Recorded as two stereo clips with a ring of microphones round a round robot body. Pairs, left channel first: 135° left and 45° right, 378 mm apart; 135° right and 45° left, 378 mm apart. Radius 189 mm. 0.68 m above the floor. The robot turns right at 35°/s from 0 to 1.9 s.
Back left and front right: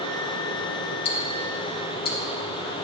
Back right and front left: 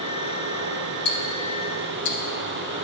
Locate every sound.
1.1 s ticking: 165° left, 0.6 m; by 2.9 s 165° right, 0.6 m